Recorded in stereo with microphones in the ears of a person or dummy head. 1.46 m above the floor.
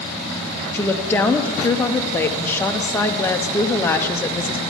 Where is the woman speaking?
10° left (ahead or behind), 0.6 m.